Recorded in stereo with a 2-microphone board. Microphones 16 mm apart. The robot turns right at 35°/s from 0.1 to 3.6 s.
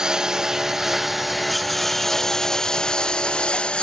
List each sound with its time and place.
0.0 s a lawn mower: 35° right (ahead or behind); by 3.8 s 60° left (ahead or behind)